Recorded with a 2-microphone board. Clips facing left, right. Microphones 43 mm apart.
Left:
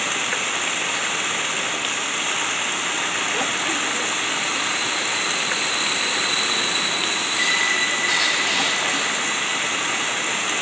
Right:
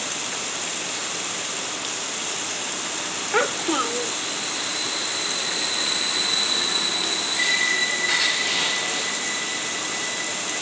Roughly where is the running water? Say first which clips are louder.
Left 7 dB; left.